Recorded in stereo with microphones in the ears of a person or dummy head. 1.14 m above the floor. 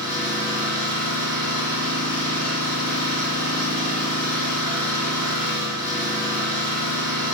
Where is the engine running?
15° right (ahead or behind), 3.5 m.